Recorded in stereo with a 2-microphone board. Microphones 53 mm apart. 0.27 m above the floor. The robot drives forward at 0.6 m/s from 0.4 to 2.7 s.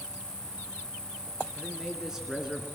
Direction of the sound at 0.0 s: 70° right (ahead or behind).